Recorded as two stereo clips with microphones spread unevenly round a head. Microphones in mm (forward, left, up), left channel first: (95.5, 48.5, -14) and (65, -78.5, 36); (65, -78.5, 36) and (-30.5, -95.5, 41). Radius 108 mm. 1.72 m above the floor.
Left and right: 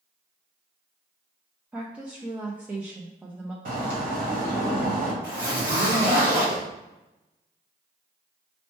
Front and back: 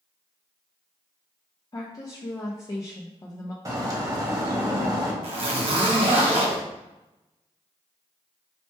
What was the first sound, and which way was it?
A woman speaking, 40° right.